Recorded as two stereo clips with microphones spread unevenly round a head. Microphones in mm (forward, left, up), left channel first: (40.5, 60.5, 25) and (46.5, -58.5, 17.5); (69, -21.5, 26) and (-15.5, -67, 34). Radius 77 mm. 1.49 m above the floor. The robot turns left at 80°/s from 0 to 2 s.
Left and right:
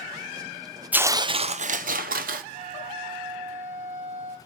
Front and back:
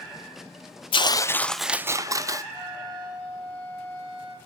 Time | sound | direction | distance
0.9 | tearing paper | 10° right | 0.7 m
2.5 | a flute | 65° right | 5 m